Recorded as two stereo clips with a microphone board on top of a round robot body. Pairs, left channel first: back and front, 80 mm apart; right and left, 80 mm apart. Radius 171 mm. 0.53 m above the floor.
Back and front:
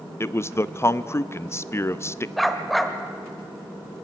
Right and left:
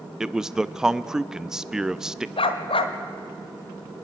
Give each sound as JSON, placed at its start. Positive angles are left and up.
{"t": 0.2, "sound": "a man speaking", "azimuth_deg": 165, "distance_m": 0.7}
{"t": 2.4, "sound": "a dog barking", "azimuth_deg": -90, "distance_m": 1.0}